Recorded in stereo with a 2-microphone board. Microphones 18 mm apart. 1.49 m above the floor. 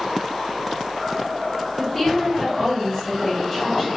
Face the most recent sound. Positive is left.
turn(degrees=35)  # may be behind; listen again after turning